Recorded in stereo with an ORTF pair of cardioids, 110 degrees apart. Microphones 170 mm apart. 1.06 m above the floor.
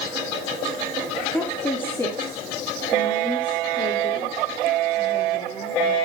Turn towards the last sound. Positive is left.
turn(degrees=35)